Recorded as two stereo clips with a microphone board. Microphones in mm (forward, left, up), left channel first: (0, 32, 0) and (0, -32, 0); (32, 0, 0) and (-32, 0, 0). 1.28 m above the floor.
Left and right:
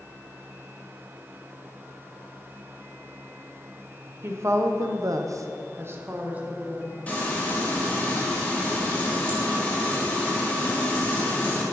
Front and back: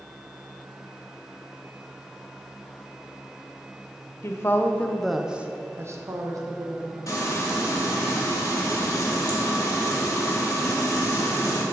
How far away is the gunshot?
No gunshot in this recording.